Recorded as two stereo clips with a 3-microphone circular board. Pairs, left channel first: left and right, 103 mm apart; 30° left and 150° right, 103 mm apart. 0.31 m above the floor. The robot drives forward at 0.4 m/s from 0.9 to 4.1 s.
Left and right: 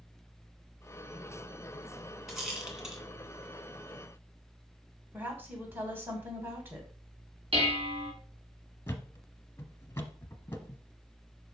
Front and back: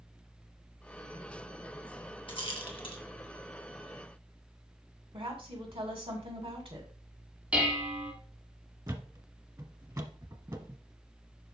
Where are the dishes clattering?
70° right, 2.0 m.